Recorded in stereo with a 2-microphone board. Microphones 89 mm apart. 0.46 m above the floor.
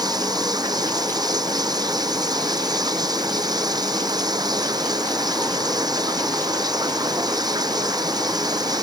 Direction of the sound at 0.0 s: 50° right (ahead or behind).